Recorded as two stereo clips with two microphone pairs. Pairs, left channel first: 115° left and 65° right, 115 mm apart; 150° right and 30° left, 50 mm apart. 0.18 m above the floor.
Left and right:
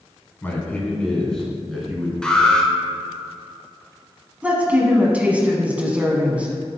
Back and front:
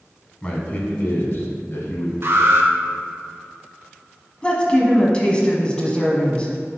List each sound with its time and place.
0.4 s a man speaking: 165° left, 1.2 m; by 2.1 s 155° right, 2 m
2.2 s an alarm: 35° left, 1.3 m
4.4 s a woman speaking: 125° right, 1.2 m